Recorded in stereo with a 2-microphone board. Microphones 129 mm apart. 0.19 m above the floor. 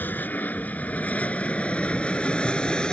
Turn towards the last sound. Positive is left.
turn(degrees=5)  # may be behind; listen again after turning